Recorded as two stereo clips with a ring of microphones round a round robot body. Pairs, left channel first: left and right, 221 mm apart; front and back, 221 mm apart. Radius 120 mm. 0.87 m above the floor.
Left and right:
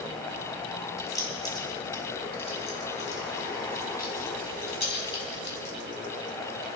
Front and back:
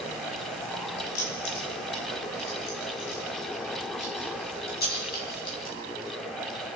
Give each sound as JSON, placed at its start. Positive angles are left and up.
{"t": 1.0, "sound": "keys jangling", "azimuth_deg": 15, "distance_m": 5.5}